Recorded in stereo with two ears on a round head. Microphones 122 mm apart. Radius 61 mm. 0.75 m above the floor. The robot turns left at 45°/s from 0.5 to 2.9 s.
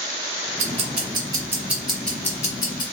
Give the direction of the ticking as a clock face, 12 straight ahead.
4 o'clock.